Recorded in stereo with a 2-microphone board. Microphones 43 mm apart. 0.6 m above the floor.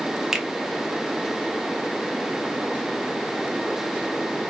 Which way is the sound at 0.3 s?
10° right (ahead or behind).